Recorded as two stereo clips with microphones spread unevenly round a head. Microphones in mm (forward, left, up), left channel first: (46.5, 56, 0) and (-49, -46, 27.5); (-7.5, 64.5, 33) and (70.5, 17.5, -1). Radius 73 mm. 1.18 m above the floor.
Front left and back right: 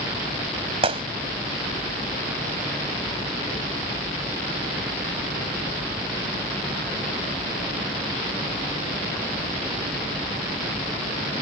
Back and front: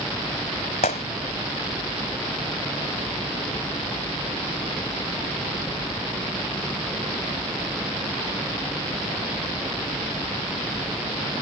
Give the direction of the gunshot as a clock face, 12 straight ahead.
6 o'clock.